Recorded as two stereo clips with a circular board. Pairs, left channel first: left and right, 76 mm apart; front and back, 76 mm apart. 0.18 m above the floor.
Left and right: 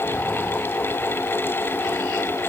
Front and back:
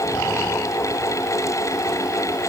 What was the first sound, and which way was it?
Only background noise.